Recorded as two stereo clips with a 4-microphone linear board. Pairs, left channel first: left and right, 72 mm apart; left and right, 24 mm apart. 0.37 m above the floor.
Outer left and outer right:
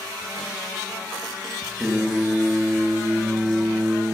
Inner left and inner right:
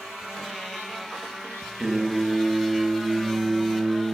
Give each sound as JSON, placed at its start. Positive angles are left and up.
{"t": 1.8, "sound": "singing", "side_deg": -5, "distance_m": 0.8}